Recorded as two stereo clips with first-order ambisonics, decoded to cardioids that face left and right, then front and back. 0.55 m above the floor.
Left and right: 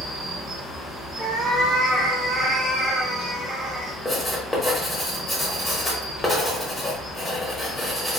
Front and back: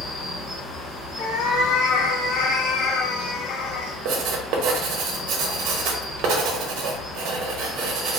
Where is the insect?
5° left, 1.5 m.